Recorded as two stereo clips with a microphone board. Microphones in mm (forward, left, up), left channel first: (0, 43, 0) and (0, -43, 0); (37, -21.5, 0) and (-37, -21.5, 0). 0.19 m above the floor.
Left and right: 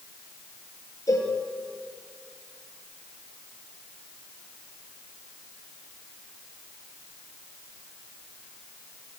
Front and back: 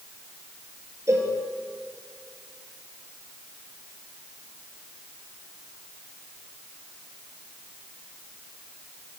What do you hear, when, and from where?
1.1 s a cowbell: 135° left, 4 m